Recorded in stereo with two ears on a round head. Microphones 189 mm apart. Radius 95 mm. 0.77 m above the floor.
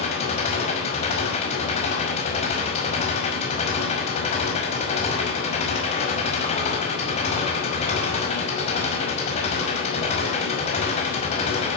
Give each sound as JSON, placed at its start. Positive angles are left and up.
{"t": 0.0, "sound": "an engine running", "side_deg": 30, "distance_m": 5.0}